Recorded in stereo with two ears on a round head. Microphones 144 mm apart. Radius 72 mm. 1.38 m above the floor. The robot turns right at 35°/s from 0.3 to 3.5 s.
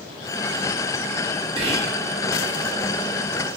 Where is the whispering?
35° right (ahead or behind), 0.5 m; by 1.9 s 45° right (ahead or behind), 0.5 m.